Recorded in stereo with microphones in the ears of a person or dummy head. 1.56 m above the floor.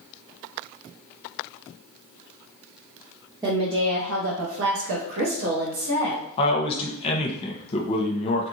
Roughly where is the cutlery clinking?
I don't hear cutlery clinking.